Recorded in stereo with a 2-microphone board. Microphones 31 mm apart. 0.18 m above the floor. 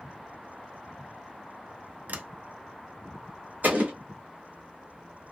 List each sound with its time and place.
2.1 s a sliding door: 70° right (ahead or behind), 0.6 m
3.6 s an explosion: 75° right (ahead or behind), 2 m